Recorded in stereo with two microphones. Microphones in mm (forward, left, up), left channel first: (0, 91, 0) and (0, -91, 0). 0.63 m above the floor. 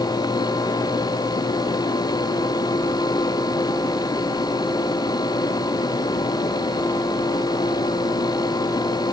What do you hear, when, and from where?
Only background noise.